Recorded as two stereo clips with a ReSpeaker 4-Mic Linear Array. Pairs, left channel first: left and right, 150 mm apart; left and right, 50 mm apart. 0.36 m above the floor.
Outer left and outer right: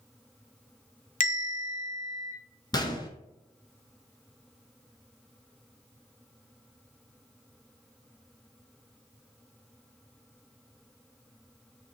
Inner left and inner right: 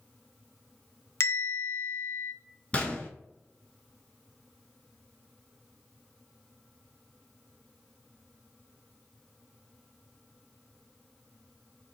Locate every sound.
1.2 s a bell: 60° left (ahead or behind), 0.8 m
2.7 s a gunshot: 25° left (ahead or behind), 0.7 m